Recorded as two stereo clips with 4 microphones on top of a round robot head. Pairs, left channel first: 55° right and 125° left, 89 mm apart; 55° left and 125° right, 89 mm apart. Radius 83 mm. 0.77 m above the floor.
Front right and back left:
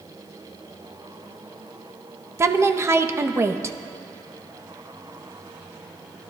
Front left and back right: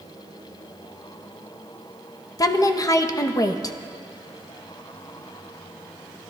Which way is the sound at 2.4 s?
80° left.